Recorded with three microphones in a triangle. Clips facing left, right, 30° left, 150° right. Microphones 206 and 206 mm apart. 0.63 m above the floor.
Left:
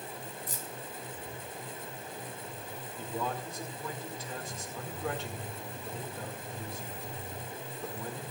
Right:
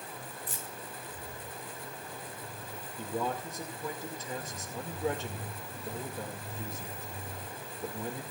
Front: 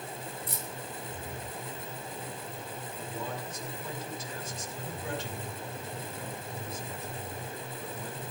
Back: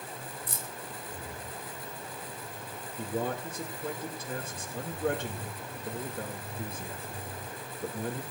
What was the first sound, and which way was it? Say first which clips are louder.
Keys jangling: left 1 dB, front 2 dB; 45° left.